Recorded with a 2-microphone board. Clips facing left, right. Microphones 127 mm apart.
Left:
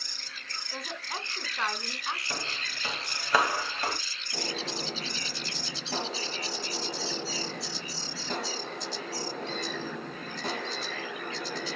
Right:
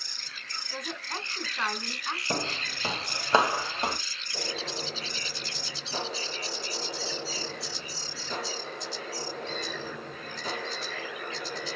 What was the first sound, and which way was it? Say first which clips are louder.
A woman speaking: right 1 dB; 5° left (ahead or behind).